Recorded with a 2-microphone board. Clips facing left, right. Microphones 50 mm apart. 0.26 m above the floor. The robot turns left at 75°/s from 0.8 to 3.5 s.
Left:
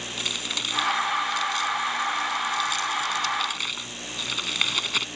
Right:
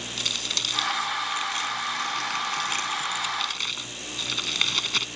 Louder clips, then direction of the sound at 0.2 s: Even; 15° left (ahead or behind).